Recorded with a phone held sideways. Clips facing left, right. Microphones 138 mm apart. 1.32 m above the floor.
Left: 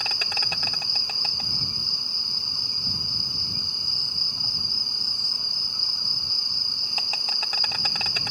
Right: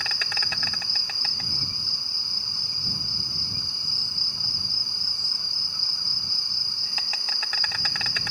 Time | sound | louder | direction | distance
0.0 | an insect | left 2 dB | 20° left (ahead or behind) | ?